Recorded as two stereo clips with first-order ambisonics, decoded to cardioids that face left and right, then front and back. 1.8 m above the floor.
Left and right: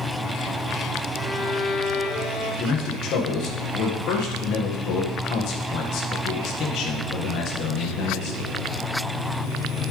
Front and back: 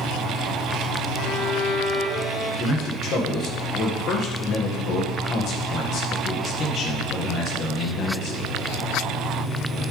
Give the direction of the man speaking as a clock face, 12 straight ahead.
10 o'clock.